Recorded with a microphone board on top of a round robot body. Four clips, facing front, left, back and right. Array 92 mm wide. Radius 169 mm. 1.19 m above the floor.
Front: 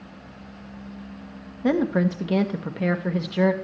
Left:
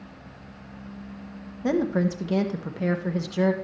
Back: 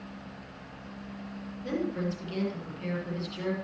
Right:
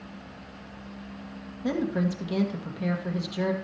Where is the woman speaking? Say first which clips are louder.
Left 4 dB, front 10 dB; 20° left, 1.2 m.